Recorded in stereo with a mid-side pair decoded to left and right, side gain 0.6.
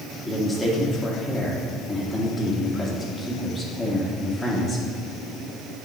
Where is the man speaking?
15° left, 2.0 m.